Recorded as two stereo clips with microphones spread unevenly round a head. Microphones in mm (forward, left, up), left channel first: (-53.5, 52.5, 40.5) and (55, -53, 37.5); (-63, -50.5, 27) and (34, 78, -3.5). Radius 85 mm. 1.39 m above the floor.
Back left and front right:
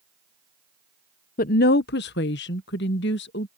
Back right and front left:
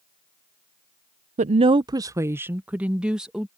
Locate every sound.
1.4 s a woman speaking: 100° left; by 3.5 s 140° left